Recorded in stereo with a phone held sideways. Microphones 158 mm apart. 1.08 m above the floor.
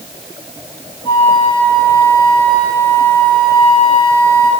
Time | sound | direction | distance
1.1 | a flute | 35° left (ahead or behind) | 2 m